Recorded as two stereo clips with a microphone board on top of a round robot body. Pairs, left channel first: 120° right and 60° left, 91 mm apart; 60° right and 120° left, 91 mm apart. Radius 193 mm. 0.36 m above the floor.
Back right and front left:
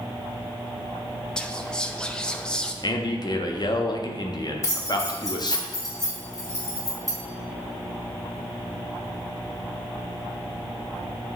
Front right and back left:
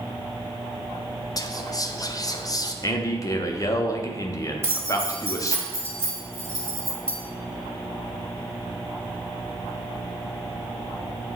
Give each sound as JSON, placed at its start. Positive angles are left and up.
{"t": 1.4, "sound": "whispering", "azimuth_deg": -45, "distance_m": 0.9}
{"t": 2.8, "sound": "a man speaking", "azimuth_deg": -100, "distance_m": 1.1}
{"t": 4.6, "sound": "keys jangling", "azimuth_deg": -175, "distance_m": 2.5}